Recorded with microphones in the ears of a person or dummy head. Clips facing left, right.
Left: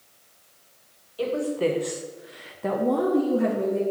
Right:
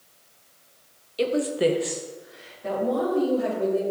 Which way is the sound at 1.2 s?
30° right (ahead or behind).